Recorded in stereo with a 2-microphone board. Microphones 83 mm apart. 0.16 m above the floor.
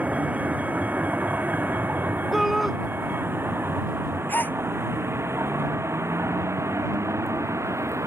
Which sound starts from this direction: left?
A gasp, at 4.3 s.